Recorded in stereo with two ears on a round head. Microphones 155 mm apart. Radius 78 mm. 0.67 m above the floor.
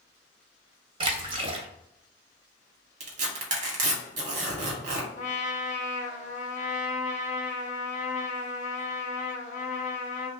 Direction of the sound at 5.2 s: 45° left (ahead or behind).